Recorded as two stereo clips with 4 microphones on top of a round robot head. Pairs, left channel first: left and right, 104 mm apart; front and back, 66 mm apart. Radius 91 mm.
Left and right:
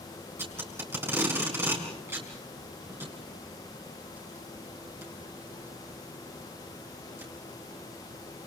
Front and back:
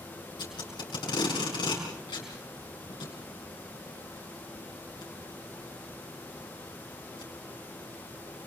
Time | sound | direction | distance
0.4 | tape being pulled | 25° right | 5.5 m